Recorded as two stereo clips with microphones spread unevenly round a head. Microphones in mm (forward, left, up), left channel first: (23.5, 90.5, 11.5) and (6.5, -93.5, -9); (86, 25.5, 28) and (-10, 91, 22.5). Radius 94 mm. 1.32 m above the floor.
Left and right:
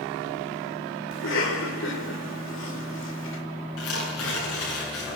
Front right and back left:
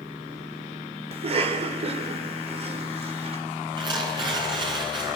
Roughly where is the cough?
Behind left.